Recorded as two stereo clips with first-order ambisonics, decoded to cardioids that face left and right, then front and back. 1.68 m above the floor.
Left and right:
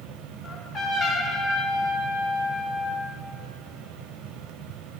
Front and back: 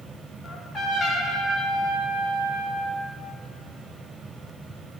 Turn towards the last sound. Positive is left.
turn(degrees=45)